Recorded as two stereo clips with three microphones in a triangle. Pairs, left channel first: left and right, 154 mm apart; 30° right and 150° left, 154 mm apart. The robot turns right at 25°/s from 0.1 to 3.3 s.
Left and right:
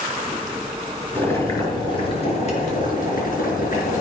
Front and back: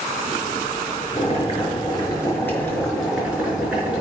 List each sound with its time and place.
1.1 s boiling: 15° left, 4.5 m; by 4.0 s 65° left, 4.5 m